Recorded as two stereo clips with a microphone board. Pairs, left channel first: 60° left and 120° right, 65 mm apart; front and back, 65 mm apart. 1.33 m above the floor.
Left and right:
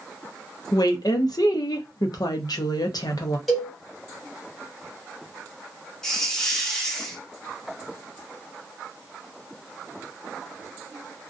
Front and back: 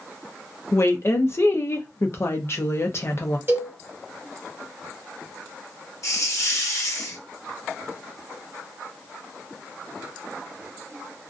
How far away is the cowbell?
About 1.5 m.